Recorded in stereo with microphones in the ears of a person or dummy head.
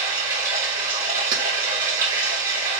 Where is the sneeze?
I don't hear a sneeze.